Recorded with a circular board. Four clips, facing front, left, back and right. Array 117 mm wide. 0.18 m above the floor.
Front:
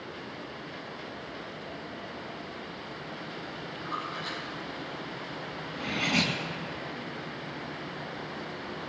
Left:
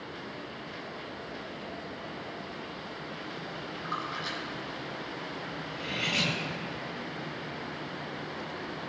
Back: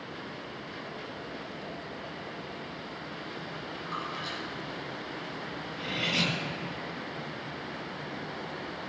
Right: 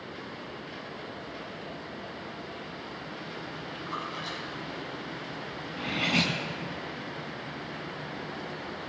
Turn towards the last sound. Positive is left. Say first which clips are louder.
# right 5 dB, front 3 dB
turn(degrees=-45)